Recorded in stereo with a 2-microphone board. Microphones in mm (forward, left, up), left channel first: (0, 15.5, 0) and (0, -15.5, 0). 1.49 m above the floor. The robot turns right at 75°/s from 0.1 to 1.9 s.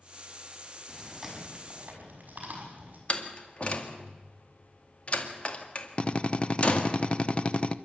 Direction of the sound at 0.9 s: 20° left (ahead or behind).